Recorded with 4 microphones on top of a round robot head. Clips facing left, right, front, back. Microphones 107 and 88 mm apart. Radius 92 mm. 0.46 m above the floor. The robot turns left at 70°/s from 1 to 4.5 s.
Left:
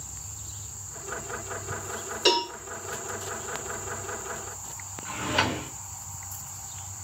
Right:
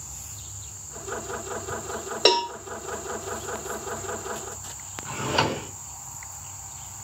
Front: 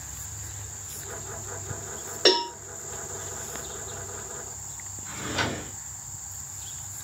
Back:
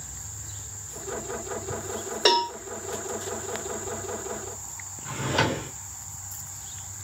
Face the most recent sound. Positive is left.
turn(degrees=-150)